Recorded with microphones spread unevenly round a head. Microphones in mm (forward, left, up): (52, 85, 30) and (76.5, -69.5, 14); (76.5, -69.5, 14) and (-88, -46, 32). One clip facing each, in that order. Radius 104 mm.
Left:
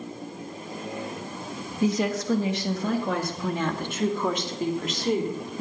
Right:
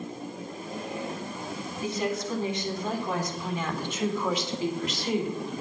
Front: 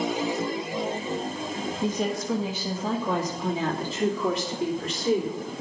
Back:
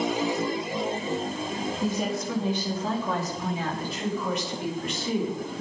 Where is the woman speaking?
90° left, 1.7 m; by 5.5 s 50° left, 3 m.